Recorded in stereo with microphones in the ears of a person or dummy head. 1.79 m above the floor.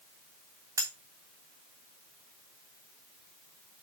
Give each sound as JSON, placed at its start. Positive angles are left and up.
{"t": 0.8, "sound": "cutlery clinking", "side_deg": -10, "distance_m": 1.3}